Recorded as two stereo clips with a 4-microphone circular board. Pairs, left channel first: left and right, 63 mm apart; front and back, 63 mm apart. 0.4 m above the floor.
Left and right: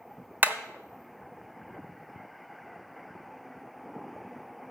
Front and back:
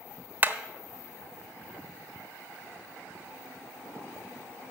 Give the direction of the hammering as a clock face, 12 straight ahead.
4 o'clock.